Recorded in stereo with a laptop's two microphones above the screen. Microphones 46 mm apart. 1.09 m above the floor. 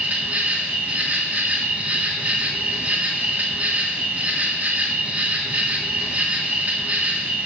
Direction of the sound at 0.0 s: 35° right (ahead or behind).